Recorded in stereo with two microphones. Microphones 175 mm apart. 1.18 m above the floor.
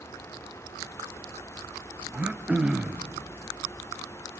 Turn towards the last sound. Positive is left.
turn(degrees=-5)  # may be behind; listen again after turning